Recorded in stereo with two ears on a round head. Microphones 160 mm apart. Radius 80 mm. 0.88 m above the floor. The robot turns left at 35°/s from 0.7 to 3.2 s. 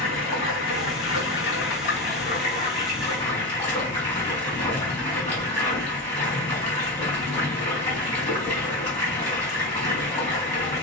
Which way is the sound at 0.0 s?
100° left.